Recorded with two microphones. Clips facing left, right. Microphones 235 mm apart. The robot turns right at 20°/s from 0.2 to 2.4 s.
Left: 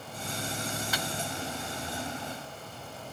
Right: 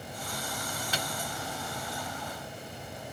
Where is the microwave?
30° right (ahead or behind), 1.2 m.